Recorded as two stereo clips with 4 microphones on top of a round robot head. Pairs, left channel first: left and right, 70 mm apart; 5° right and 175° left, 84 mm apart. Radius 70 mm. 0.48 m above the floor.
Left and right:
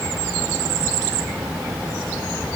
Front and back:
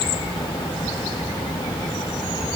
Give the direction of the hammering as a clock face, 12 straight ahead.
I don't hear hammering.